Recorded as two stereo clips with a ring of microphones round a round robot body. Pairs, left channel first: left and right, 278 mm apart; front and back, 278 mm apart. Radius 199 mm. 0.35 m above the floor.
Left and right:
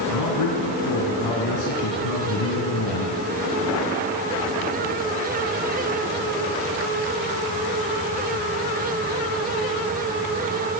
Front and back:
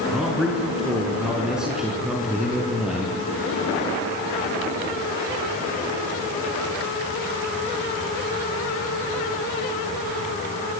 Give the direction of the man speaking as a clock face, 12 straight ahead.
9 o'clock.